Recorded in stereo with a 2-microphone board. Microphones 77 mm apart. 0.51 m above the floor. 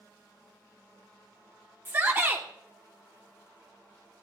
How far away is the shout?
About 1.3 m.